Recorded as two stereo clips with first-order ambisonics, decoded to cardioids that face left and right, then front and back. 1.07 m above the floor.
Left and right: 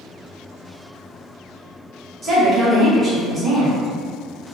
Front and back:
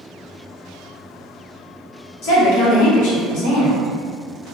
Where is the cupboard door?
No cupboard door in this recording.